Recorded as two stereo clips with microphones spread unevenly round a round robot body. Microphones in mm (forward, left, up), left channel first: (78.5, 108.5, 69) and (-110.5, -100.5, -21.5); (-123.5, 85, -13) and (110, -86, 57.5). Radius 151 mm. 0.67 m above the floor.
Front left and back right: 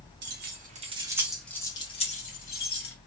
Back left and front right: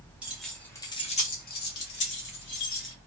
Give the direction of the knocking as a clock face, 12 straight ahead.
I don't hear knocking.